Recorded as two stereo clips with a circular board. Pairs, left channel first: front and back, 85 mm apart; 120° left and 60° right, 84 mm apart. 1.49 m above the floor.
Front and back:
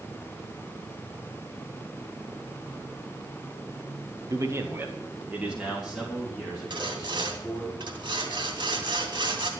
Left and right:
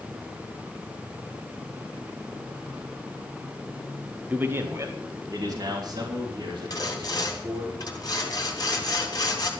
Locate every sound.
4.3 s a man speaking: 135° right, 1.3 m; by 7.7 s 90° right, 5.5 m
6.7 s sawing: 160° left, 3 m